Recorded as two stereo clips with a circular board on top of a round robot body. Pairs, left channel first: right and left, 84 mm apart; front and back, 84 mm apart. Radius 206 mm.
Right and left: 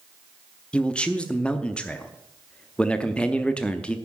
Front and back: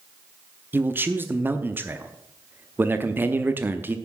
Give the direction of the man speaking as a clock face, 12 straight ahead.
5 o'clock.